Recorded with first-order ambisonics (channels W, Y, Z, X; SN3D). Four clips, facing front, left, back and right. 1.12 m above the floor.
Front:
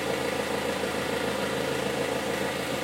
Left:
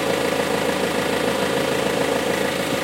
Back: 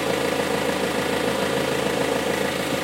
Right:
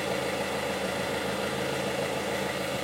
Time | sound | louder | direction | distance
0.0 | an engine running | left 9 dB, back 6 dB | 115° left | 1.6 m